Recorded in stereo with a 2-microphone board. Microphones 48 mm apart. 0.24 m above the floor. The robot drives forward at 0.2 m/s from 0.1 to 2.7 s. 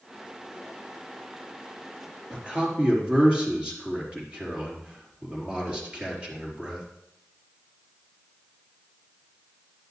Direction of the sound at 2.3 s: 25° right (ahead or behind).